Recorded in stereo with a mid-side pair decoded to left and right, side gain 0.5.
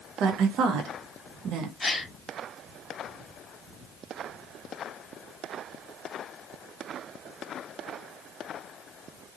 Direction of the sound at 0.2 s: 65° right.